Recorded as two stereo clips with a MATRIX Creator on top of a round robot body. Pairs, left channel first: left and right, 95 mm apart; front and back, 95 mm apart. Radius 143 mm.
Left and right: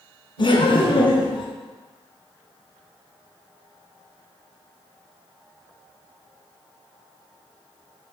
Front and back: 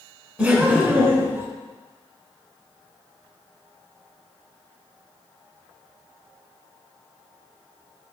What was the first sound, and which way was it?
Laughter, 110° left.